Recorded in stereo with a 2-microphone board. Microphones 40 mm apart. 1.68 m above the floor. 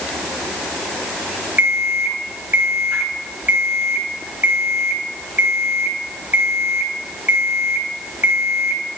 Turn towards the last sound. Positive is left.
turn(degrees=-55)  # may be behind; listen again after turning